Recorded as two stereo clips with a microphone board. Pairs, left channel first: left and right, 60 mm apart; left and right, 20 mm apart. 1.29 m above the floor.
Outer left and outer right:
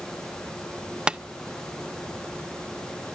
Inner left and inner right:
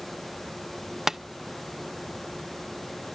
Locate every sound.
1.1 s tapping: 15° right (ahead or behind), 0.5 m